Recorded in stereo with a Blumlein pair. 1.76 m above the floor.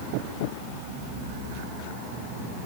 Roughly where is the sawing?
No sawing in this recording.